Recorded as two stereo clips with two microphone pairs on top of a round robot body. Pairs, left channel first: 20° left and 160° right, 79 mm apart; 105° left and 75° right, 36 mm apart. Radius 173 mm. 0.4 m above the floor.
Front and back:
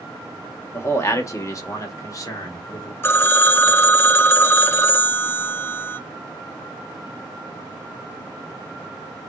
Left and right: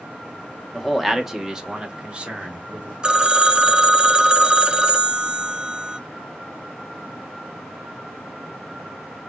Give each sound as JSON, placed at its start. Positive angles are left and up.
{"t": 0.7, "sound": "a man speaking", "azimuth_deg": 35, "distance_m": 1.5}
{"t": 3.0, "sound": "a phone ringing", "azimuth_deg": -20, "distance_m": 0.7}